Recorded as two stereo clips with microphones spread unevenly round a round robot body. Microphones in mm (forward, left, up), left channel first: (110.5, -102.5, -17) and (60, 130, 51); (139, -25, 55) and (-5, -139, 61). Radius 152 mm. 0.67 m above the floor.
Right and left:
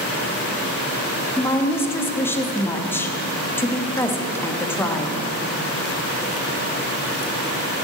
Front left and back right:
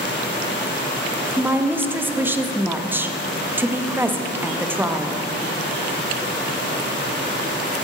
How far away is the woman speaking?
About 1.0 m.